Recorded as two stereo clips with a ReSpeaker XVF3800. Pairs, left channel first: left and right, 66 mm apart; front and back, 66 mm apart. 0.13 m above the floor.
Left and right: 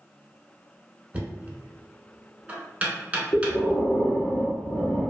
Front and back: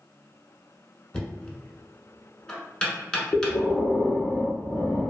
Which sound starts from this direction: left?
Breathing, at 3.3 s.